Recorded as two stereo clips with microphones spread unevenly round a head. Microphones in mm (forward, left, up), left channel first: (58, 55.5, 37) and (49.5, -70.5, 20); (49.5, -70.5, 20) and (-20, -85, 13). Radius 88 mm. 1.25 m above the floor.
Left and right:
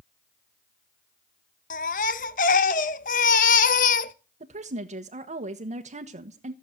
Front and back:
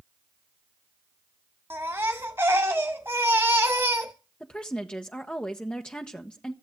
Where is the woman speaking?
65° right, 1.3 m.